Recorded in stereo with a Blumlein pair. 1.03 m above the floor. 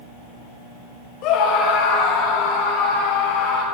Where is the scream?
40° left, 1.0 m; by 3.6 s 35° left, 3 m.